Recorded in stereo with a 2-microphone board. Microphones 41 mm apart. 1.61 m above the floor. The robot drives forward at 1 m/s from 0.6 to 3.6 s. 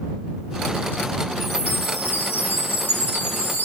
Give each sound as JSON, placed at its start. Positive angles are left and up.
{"t": 1.4, "sound": "a chime", "side_deg": 65, "distance_m": 8.0}